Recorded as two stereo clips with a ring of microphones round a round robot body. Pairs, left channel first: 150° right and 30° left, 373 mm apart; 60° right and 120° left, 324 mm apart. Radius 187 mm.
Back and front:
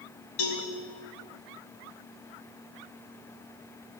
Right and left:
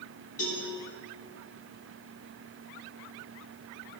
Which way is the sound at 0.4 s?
130° right.